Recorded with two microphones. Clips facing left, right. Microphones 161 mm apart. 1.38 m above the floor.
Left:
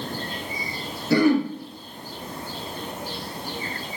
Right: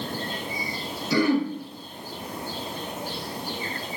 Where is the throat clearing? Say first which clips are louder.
Left 3 dB; 55° left (ahead or behind), 0.6 m.